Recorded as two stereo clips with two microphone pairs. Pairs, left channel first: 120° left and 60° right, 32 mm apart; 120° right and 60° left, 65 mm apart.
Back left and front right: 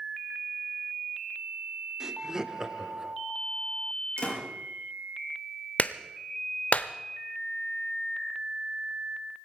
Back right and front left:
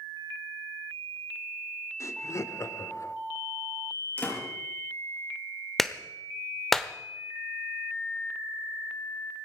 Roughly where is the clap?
Behind left.